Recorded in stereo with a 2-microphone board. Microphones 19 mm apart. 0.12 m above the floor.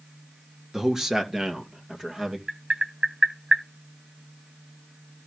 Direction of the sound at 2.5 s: 75° right (ahead or behind).